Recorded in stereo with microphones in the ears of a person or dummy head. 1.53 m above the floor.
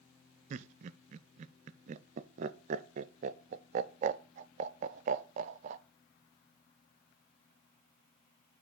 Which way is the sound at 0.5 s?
35° right (ahead or behind).